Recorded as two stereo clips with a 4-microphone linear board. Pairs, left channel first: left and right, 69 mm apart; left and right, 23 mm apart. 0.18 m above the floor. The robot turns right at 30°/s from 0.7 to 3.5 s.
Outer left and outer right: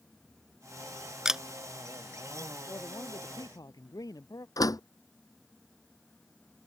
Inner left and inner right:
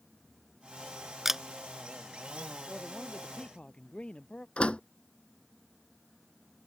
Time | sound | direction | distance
1.2 | a camera shutter | 10° right (ahead or behind) | ?
2.7 | a man speaking | 50° left (ahead or behind) | ?
4.6 | a door slam | 65° left (ahead or behind) | ?